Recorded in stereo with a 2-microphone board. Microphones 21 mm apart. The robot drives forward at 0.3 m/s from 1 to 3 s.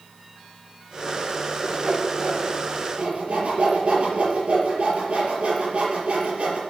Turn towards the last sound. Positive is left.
turn(degrees=-70)  # may be behind; listen again after turning